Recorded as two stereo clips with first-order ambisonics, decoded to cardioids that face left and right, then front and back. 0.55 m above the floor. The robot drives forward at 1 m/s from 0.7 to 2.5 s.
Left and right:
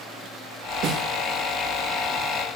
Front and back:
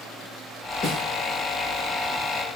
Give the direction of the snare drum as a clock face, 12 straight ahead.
2 o'clock.